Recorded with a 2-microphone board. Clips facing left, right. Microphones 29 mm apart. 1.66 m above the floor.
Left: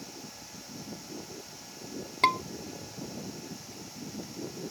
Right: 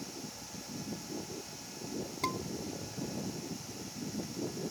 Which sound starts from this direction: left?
A scream, at 2.2 s.